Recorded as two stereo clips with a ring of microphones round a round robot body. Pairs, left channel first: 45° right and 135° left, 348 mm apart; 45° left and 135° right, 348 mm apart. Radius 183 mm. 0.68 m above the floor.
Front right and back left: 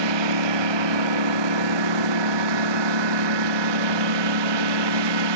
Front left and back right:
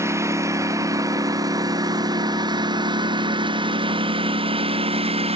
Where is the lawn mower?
140° left; by 5.4 s 150° left.